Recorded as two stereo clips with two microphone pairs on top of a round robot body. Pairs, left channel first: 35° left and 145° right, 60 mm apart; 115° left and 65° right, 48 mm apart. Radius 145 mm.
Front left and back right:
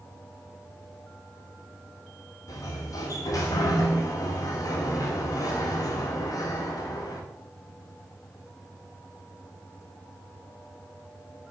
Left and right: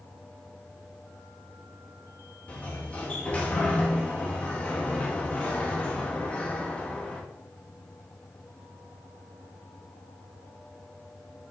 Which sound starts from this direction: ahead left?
A sliding door, at 2.5 s.